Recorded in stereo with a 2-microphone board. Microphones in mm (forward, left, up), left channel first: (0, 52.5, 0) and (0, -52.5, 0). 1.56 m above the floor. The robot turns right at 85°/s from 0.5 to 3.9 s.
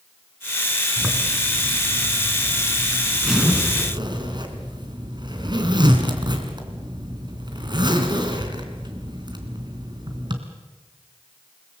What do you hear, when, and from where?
1.0 s a zipper: 20° right, 3 m; by 10.4 s 130° right, 3 m